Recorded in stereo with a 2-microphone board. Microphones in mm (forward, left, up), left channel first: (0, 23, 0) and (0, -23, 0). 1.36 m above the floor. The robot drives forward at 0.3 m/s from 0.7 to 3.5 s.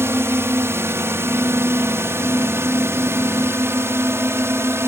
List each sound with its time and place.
0.0 s a drone: 65° right (ahead or behind)